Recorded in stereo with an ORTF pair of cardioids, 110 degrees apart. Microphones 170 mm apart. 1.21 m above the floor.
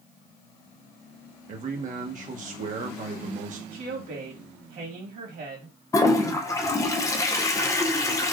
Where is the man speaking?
50° right, 1.1 m.